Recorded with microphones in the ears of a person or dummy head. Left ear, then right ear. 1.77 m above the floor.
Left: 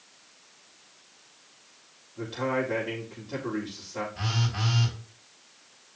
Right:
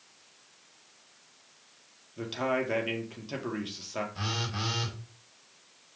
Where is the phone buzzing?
75° right (ahead or behind), 4 m.